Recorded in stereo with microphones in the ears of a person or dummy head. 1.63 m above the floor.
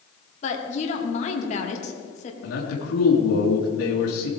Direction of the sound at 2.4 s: 85° left.